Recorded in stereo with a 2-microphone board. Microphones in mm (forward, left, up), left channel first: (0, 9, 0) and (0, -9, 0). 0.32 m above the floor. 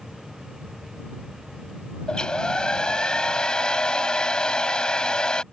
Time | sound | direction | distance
2.1 | a hair dryer | 50° left (ahead or behind) | ?